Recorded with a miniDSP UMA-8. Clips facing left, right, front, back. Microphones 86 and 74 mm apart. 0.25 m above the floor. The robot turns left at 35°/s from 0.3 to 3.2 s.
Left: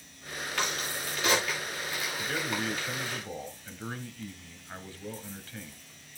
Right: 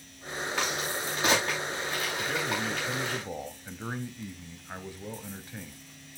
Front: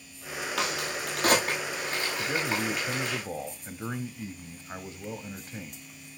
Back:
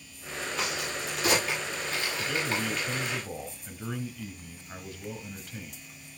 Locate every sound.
0.6 s a crack: 5° right, 8.5 m; by 3.2 s 95° right, 8.5 m
2.2 s a man speaking: 5° left, 1.2 m; by 5.8 s 30° right, 1.2 m